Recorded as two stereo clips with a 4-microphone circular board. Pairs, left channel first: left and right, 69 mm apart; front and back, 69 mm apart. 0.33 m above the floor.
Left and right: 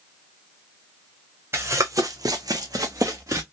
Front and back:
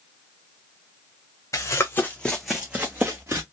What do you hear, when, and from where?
1.5 s running footsteps: 35° right, 1.1 m; by 3.4 s 130° right, 1.4 m